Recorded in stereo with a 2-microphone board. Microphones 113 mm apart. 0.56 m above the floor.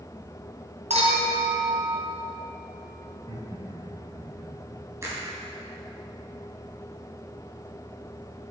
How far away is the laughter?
About 4 m.